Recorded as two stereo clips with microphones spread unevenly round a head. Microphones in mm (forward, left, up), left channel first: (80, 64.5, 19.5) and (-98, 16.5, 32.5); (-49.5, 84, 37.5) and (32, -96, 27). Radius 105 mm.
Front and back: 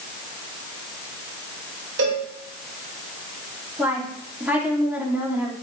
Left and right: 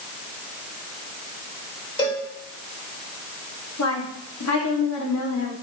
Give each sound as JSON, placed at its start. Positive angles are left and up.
{"t": 2.0, "sound": "a cowbell", "azimuth_deg": 180, "distance_m": 5.5}
{"t": 3.8, "sound": "a woman speaking", "azimuth_deg": 115, "distance_m": 2.5}